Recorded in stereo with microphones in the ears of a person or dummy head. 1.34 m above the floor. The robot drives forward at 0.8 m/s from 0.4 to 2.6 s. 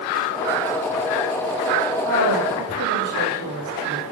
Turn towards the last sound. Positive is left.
turn(degrees=-70)  # may be behind; listen again after turning